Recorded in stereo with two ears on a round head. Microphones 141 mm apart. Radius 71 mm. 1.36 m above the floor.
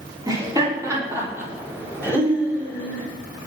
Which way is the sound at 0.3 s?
25° right (ahead or behind).